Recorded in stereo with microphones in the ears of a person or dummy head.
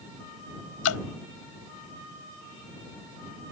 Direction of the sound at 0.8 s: 85° left.